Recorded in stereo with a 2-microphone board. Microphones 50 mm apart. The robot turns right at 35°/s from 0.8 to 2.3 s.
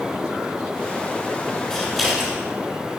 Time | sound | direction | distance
1.7 | scissors | 15° left (ahead or behind) | 4 m